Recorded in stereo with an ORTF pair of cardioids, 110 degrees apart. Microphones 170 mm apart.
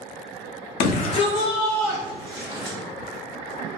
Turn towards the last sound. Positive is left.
turn(degrees=-10)